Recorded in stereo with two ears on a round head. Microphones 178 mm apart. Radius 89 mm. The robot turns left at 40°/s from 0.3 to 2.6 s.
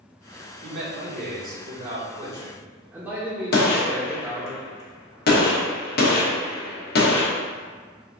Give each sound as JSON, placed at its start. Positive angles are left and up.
{"t": 0.6, "sound": "a man speaking", "azimuth_deg": -90, "distance_m": 1.3}
{"t": 3.5, "sound": "a gunshot", "side_deg": 50, "distance_m": 0.8}